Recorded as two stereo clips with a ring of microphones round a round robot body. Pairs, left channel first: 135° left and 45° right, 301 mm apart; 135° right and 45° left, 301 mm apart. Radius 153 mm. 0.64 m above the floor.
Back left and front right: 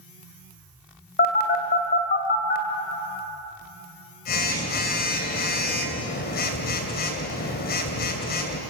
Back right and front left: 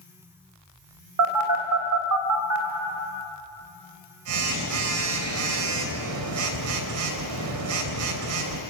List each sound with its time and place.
1.2 s a phone buzzing: 75° left, 2.5 m